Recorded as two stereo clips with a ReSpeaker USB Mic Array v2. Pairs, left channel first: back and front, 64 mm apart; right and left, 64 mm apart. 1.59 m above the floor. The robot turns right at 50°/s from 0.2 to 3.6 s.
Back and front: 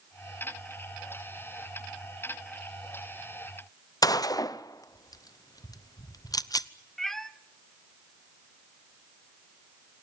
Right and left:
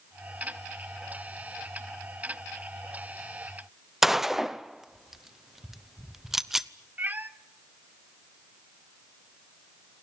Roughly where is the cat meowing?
Left.